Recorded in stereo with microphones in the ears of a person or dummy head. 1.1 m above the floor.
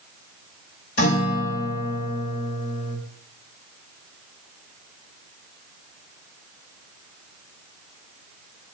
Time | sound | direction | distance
1.0 | a guitar | 70° left (ahead or behind) | 2.5 m